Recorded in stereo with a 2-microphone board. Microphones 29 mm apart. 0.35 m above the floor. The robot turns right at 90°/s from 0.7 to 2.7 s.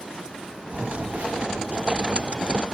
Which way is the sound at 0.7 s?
75° right (ahead or behind).